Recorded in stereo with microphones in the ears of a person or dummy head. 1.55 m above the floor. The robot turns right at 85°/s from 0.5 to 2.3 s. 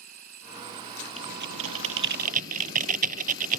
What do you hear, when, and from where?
0.0 s an insect: 125° right; by 3.6 s 30° left
1.2 s typing on a keyboard: 45° right (ahead or behind); by 3.6 s 40° right (ahead or behind)